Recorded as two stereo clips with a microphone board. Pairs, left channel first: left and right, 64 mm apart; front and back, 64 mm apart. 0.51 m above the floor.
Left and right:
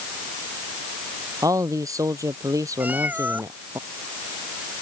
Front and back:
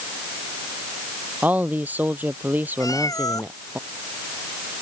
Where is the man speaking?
115° right; by 3.8 s 120° right.